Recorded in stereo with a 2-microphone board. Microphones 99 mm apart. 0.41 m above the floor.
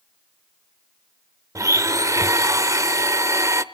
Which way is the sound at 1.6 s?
30° right (ahead or behind).